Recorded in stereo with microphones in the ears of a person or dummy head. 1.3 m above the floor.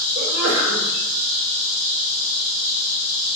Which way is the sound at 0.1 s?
70° right (ahead or behind).